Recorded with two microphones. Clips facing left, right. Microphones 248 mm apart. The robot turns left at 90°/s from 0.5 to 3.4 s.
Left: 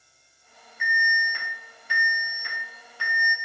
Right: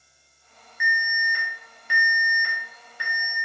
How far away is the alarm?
About 0.7 m.